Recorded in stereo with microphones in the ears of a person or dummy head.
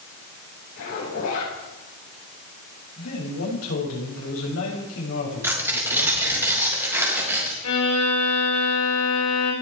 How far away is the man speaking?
About 7 m.